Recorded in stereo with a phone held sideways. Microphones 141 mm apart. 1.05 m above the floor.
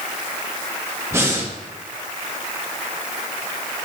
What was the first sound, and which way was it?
Breathing, 20° right (ahead or behind).